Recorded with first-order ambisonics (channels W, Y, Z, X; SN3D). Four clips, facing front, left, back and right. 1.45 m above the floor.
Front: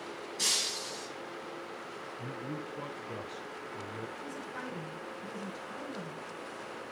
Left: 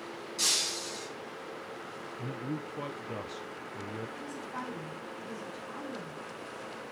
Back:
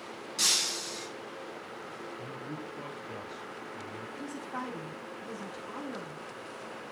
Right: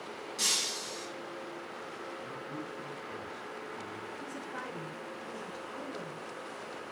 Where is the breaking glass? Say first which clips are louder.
Left 1 dB, back 3 dB; 175° left, 5.5 m.